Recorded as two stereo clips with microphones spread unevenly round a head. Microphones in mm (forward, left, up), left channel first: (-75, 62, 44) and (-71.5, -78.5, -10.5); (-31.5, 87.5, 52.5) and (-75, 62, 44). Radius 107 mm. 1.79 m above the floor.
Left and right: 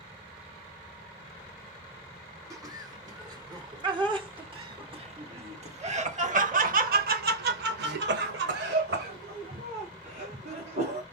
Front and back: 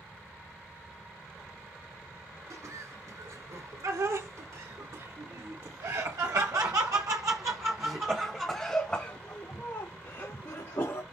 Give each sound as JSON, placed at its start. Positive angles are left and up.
{"t": 2.5, "sound": "laughter", "azimuth_deg": -155, "distance_m": 6.0}